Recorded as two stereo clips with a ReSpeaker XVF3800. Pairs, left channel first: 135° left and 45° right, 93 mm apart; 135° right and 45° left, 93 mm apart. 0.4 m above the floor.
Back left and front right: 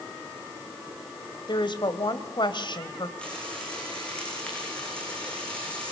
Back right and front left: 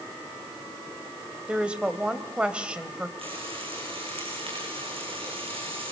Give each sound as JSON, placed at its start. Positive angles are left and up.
{"t": 1.5, "sound": "a woman speaking", "azimuth_deg": 120, "distance_m": 2.5}
{"t": 3.2, "sound": "frying", "azimuth_deg": 55, "distance_m": 9.5}